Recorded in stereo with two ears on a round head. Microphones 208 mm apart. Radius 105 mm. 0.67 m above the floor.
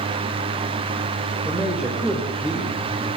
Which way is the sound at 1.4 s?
5° right (ahead or behind).